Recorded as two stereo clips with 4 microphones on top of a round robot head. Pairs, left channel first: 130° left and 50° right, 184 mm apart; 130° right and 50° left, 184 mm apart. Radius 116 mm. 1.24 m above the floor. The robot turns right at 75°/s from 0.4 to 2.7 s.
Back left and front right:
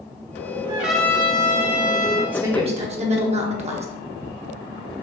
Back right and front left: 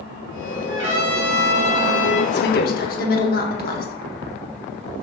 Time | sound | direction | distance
0.7 | a trumpet | 25° left | 1.4 m
2.3 | a woman speaking | 130° right | 0.9 m